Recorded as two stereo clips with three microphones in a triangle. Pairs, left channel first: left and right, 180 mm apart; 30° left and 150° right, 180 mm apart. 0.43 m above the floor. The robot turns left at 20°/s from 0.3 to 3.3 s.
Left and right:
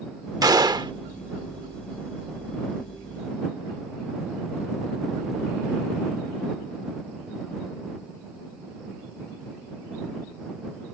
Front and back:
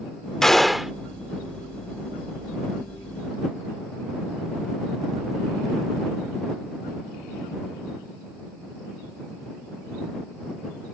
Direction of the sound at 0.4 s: 55° right.